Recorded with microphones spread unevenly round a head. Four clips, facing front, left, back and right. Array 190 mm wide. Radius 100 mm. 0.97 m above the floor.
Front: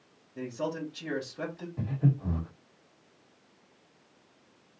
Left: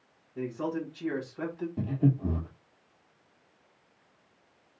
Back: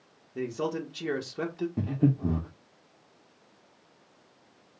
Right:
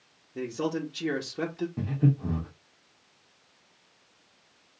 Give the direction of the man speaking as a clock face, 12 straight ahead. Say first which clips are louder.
Right 2 dB, back 3 dB; 4 o'clock.